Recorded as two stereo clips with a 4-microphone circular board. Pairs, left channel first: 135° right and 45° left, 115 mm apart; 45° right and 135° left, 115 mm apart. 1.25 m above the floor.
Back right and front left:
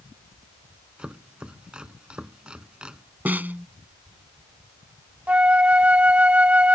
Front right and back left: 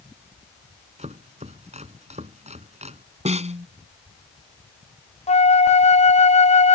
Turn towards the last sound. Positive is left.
turn(degrees=-35)